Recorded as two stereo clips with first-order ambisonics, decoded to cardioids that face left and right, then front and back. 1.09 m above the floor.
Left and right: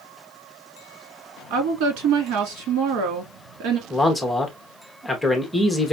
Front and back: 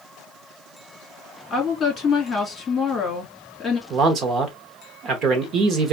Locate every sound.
1.5 s a woman speaking: 75° right, 2 m
3.9 s a man speaking: 175° left, 0.9 m